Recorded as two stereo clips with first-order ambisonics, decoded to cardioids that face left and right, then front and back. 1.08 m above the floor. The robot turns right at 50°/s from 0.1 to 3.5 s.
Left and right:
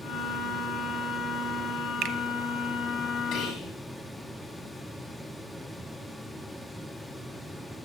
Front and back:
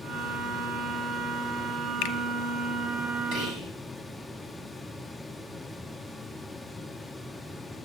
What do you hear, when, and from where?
2.0 s a finger snap: 40° right, 0.9 m; by 2.1 s 30° right, 0.9 m
3.3 s whispering: 135° left, 5 m; by 3.7 s 145° left, 5 m